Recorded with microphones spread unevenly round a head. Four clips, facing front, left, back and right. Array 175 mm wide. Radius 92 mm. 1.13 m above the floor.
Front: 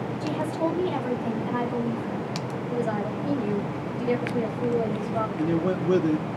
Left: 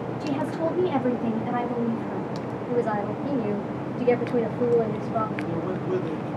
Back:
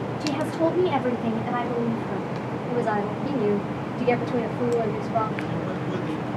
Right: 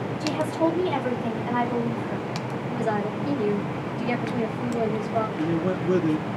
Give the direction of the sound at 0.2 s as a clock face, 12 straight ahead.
7 o'clock.